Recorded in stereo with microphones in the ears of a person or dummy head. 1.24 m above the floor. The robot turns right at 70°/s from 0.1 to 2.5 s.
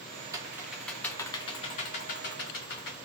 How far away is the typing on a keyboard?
About 0.7 m.